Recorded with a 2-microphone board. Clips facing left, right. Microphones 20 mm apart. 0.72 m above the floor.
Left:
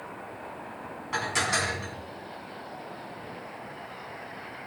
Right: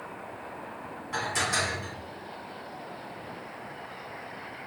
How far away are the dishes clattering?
About 4 m.